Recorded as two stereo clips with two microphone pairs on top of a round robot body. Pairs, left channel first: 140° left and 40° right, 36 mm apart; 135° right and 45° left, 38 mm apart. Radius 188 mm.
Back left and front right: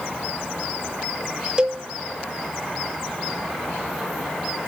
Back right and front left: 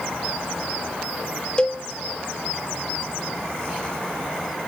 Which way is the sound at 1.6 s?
85° right.